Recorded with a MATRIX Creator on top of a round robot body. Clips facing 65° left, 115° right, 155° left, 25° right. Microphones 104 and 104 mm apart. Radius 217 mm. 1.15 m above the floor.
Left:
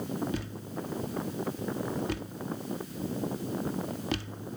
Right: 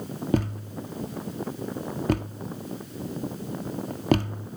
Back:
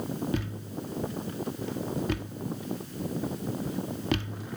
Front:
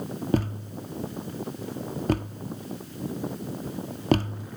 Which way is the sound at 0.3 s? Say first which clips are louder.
Right 9 dB, front 6 dB; 70° right.